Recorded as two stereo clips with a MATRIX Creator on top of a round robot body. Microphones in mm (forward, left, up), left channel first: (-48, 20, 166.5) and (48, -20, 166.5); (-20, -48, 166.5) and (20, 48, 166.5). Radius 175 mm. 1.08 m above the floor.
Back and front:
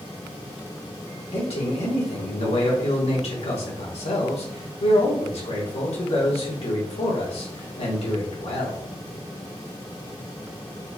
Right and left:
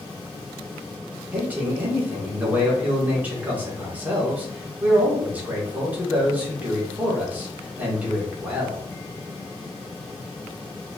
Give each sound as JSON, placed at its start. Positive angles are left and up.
{"t": 1.3, "sound": "a man speaking", "azimuth_deg": 140, "distance_m": 1.3}